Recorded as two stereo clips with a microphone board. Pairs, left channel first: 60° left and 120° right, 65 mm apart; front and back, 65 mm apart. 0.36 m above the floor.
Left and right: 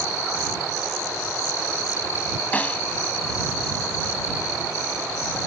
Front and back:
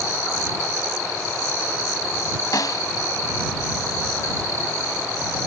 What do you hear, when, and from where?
2.5 s a snare drum: 5° right